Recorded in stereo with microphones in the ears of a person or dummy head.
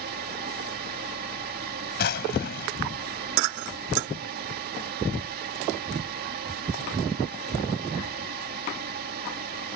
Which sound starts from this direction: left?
A drawer, at 2.0 s.